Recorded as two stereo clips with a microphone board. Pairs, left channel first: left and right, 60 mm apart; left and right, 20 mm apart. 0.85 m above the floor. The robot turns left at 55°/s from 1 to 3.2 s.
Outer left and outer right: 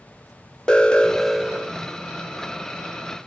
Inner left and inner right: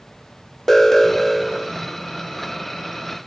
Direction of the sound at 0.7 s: 15° left.